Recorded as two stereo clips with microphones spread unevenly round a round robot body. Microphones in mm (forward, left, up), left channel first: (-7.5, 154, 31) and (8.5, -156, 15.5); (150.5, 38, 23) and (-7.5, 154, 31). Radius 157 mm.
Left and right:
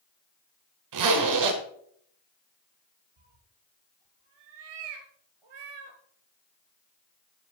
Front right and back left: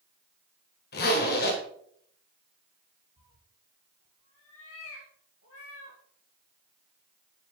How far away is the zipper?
About 2 m.